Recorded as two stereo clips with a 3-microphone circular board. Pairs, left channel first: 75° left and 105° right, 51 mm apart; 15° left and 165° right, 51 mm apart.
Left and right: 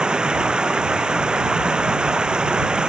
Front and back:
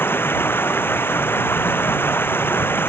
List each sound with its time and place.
0.0 s running water: 30° right